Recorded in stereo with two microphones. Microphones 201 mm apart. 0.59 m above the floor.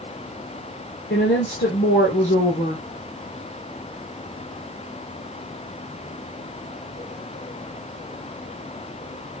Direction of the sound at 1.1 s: 70° left (ahead or behind).